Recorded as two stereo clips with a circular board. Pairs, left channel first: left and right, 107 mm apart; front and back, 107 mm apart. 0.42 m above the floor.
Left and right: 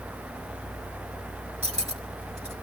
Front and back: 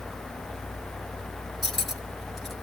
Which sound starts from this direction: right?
Cutlery clinking, at 1.6 s.